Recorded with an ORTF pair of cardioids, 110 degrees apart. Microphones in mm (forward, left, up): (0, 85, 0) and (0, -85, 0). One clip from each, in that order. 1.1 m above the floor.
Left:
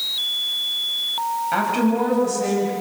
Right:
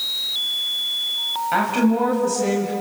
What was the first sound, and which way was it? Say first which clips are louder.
A woman speaking: right 2 dB; 10° right.